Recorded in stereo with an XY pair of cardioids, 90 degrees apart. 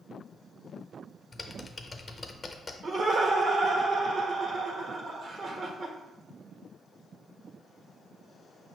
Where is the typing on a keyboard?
30° left, 0.5 m.